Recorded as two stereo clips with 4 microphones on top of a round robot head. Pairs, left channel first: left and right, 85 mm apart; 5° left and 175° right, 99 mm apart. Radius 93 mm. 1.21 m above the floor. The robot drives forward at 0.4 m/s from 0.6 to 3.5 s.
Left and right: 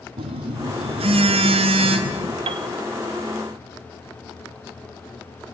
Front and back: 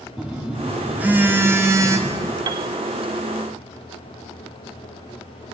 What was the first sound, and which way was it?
A phone buzzing, 95° right.